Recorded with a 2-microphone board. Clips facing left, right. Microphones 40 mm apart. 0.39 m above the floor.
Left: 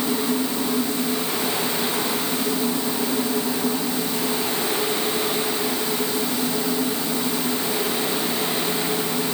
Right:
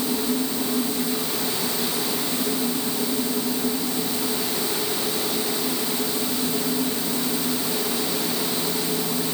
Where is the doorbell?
I don't hear a doorbell.